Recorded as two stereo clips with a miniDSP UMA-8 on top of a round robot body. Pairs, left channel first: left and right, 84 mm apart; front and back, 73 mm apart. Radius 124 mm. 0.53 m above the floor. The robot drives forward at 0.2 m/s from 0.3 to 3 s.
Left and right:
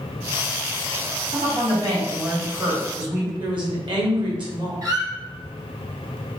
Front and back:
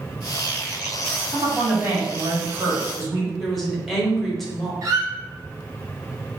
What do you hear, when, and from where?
1.3 s a woman speaking: 115° right, 2.0 m; by 3.3 s 125° right, 2 m
3.4 s a woman speaking: 90° right, 1.7 m
4.8 s a squeak: 135° right, 0.8 m